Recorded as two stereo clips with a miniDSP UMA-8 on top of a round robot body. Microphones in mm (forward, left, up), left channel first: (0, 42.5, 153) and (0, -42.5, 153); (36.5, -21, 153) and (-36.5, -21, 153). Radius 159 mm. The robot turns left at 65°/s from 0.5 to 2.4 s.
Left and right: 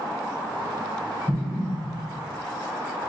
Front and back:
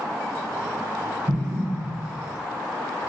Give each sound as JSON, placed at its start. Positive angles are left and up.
{"t": 1.3, "sound": "an explosion", "azimuth_deg": -165, "distance_m": 1.8}